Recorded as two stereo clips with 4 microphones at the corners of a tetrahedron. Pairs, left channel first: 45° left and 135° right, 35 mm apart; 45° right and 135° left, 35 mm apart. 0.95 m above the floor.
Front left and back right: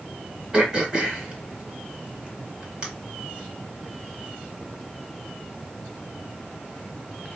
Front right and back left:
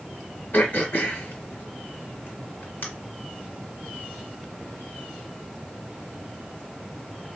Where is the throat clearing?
65° right, 1.7 m.